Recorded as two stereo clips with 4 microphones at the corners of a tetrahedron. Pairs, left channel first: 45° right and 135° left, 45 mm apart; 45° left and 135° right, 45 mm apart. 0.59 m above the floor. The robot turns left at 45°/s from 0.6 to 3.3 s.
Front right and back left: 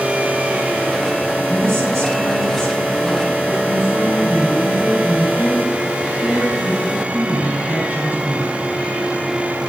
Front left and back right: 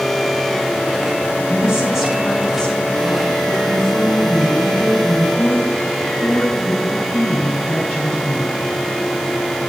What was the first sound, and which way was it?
A woman speaking, 170° left.